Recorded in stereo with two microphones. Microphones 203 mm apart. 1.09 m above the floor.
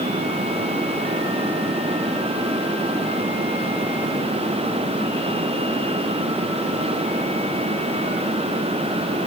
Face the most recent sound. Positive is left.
No sound to turn to.